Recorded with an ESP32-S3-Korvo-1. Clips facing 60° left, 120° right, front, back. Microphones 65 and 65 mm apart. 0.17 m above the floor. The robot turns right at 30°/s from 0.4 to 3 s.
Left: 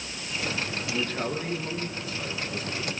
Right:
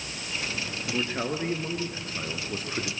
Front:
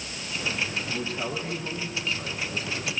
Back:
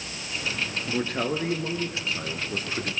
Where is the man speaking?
160° left, 2.5 m; by 2.9 s 140° right, 2.5 m.